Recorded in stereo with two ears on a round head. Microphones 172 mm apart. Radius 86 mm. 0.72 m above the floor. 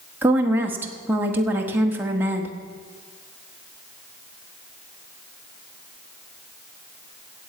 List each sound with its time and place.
0.2 s a woman speaking: 10° right (ahead or behind), 1.4 m